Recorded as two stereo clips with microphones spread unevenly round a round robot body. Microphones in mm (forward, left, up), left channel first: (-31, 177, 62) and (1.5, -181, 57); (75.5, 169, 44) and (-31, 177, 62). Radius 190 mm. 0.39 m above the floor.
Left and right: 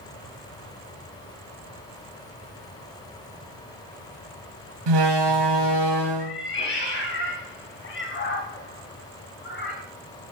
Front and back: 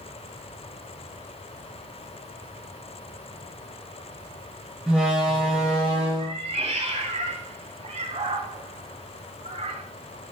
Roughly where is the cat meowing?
Behind left.